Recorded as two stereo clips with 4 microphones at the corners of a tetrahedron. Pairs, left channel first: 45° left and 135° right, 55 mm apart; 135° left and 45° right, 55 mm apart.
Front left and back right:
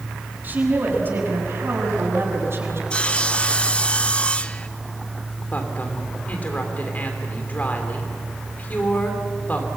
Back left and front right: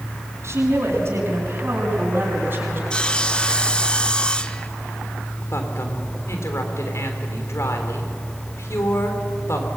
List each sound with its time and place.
0.4 s a woman speaking: 80° right, 5.5 m; by 2.8 s 95° right, 7 m
2.9 s sawing: 90° left, 0.8 m
5.5 s a woman speaking: 105° left, 3.5 m